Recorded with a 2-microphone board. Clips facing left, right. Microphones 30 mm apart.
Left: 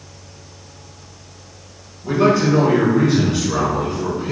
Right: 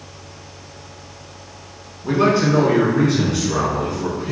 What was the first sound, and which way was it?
A man speaking, 25° right (ahead or behind).